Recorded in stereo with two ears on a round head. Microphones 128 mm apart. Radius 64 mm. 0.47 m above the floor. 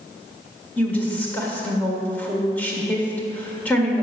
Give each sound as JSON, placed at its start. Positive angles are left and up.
{"t": 0.8, "sound": "a woman speaking", "side_deg": 10, "distance_m": 1.7}